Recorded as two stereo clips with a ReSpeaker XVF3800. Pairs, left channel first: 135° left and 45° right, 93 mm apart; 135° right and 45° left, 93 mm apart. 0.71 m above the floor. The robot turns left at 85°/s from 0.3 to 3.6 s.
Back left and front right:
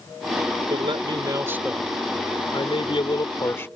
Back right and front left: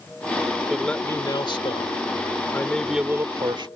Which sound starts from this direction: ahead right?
A man speaking, at 0.7 s.